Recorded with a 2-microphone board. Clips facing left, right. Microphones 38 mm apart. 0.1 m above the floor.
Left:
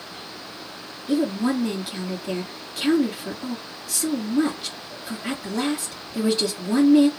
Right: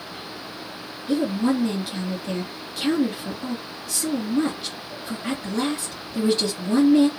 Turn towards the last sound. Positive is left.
turn(degrees=5)  # may be behind; listen again after turning